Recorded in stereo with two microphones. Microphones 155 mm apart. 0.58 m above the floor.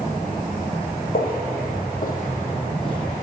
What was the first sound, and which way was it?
Footsteps, 70° left (ahead or behind).